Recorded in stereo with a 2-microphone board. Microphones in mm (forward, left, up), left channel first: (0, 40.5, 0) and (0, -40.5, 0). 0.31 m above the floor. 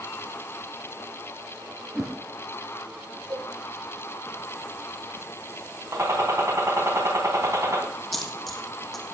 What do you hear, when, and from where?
1.9 s a whoosh: 5° right (ahead or behind), 2.5 m
3.3 s a cowbell: 50° right (ahead or behind), 8 m
5.9 s a gunshot: 35° right (ahead or behind), 3 m
8.1 s a dropped coin: 5° left (ahead or behind), 1.6 m